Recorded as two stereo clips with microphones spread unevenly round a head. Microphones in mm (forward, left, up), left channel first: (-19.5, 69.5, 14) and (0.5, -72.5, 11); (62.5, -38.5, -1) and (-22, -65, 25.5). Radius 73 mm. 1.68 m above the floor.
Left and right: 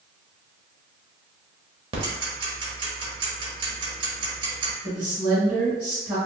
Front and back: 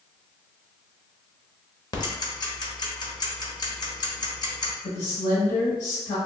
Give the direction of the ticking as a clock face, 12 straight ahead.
1 o'clock.